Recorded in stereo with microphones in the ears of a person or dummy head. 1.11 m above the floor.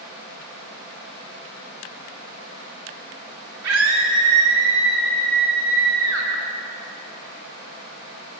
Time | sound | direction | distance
3.6 | a scream | 85° right | 2.5 m